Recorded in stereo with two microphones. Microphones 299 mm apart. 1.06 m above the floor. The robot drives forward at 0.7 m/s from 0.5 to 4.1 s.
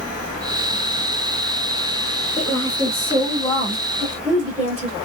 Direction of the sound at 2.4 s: 15° left (ahead or behind).